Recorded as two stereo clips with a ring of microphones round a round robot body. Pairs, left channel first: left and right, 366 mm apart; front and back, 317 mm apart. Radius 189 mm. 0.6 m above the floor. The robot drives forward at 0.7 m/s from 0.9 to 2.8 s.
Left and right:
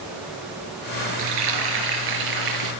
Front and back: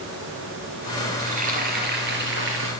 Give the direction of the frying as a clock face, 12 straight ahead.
4 o'clock.